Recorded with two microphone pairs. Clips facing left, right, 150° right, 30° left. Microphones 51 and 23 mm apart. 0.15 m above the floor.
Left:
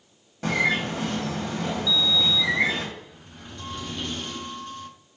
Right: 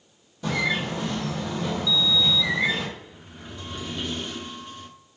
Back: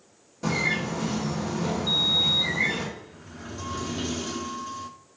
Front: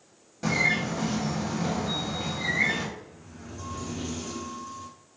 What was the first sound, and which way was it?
A bird, 90° left.